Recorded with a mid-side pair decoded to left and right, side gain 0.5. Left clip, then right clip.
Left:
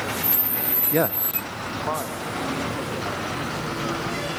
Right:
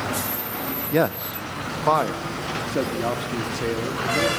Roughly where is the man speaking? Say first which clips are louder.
Right 2 dB; ahead.